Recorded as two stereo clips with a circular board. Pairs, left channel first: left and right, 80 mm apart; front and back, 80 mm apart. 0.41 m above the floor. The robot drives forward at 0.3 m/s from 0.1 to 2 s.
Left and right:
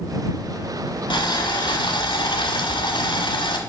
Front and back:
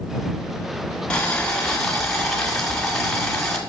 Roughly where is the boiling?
Left.